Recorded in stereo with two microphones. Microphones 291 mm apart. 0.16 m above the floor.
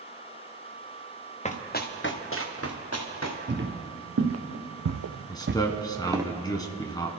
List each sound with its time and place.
1.4 s running footsteps: 25° left (ahead or behind), 1.5 m; by 3.4 s 65° left (ahead or behind), 2.5 m
3.5 s footsteps: 40° right (ahead or behind), 2 m; by 6.2 s 10° right (ahead or behind), 1.5 m
5.3 s a man speaking: 15° left (ahead or behind), 1.2 m